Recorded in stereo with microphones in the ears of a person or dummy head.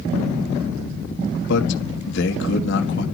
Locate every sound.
1.5 s a man speaking: 65° left (ahead or behind), 1.7 m